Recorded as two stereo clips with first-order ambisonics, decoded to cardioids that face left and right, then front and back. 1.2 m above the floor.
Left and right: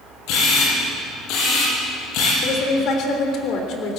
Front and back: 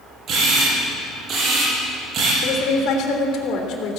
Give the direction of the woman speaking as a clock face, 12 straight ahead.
11 o'clock.